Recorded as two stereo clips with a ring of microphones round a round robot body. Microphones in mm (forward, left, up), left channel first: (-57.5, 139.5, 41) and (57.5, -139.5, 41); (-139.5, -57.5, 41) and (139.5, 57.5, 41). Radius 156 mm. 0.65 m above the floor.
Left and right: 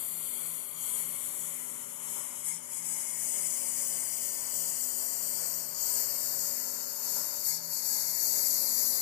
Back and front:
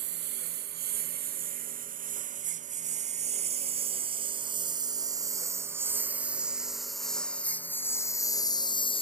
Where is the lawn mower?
80° left; by 9.0 s 130° left.